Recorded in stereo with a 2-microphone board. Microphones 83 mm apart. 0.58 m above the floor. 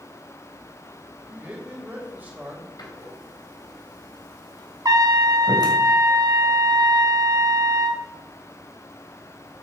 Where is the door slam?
55° left (ahead or behind), 2.5 m.